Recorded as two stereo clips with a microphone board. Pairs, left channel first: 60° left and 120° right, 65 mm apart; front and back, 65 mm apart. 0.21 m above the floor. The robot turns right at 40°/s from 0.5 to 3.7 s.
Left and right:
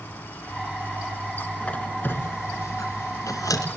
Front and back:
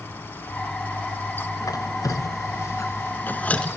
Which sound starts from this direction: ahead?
A squeak, at 1.6 s.